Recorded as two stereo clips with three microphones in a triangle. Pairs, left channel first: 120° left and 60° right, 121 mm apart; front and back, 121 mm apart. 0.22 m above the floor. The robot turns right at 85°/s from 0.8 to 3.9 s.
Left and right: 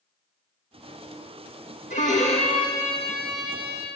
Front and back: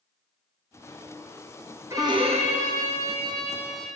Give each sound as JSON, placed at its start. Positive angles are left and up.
{"t": 1.9, "sound": "a violin", "azimuth_deg": 110, "distance_m": 1.9}